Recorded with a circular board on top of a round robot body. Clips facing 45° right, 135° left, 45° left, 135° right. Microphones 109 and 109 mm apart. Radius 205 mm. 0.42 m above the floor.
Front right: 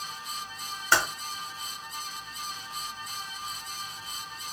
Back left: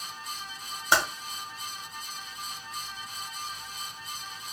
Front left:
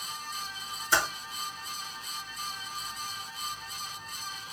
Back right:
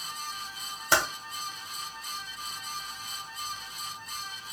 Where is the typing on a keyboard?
150° right, 1.3 m.